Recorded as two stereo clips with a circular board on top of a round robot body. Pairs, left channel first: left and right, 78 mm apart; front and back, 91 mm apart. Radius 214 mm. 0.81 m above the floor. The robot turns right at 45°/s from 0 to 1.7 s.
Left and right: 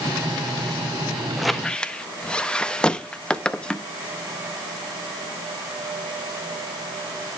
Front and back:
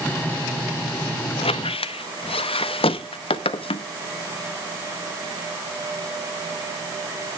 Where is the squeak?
5° right, 0.7 m; by 3.9 s 10° left, 0.7 m.